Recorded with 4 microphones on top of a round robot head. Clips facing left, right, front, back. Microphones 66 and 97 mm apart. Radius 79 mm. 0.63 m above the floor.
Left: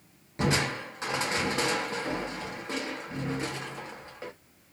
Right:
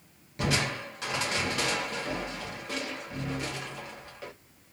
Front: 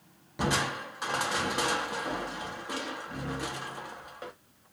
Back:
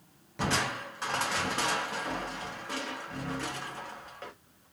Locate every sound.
0.4 s crushing: 65° left, 0.8 m